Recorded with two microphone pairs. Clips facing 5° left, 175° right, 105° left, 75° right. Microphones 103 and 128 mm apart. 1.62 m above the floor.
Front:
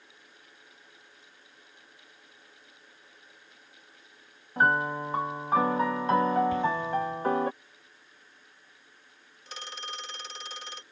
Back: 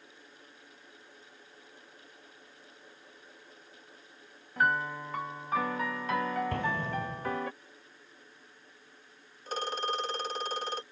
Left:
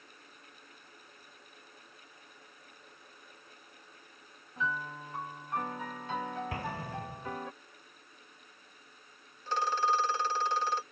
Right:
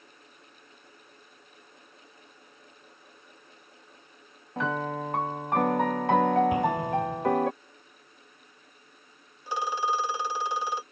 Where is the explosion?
145° right.